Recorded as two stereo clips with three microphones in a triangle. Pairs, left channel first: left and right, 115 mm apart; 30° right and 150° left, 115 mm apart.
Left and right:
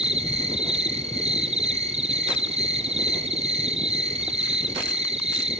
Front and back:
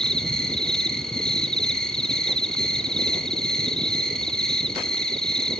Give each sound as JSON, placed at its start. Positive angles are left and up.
{"t": 0.0, "sound": "an insect", "azimuth_deg": -115, "distance_m": 0.7}